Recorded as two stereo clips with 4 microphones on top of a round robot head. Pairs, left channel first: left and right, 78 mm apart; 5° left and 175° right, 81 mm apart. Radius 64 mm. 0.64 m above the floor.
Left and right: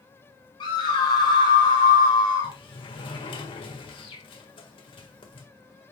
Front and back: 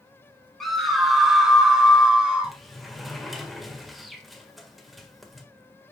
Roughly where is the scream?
Left.